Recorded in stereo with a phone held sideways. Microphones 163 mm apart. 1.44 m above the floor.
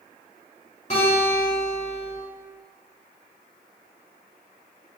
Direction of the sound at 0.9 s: 45° left (ahead or behind).